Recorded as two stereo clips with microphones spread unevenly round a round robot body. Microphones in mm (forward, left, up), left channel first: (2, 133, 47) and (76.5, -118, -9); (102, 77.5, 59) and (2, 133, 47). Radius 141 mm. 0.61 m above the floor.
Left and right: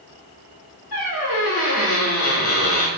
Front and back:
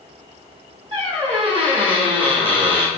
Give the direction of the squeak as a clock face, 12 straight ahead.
8 o'clock.